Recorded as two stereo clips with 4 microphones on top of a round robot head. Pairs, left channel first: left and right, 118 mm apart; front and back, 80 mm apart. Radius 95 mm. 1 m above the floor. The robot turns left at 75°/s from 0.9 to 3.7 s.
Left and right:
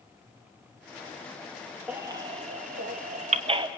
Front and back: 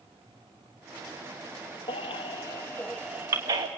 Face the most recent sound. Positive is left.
turn(degrees=-145)